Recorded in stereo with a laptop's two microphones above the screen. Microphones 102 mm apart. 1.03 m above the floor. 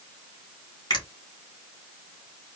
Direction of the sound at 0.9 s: 45° left (ahead or behind).